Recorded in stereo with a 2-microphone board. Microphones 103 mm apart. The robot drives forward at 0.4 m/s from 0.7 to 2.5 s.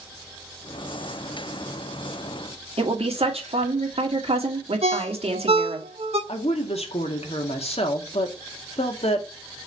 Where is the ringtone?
80° right, 1.7 m.